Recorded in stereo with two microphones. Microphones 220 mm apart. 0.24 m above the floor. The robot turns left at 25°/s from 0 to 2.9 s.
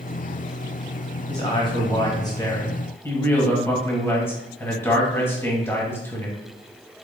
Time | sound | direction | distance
1.3 | a man speaking | 20° left (ahead or behind) | 1.3 m